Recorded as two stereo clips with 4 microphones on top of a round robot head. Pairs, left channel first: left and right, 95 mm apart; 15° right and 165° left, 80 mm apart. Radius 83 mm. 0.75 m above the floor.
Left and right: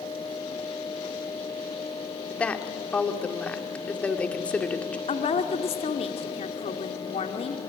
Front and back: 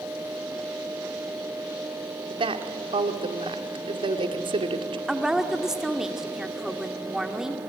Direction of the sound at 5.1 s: 85° left.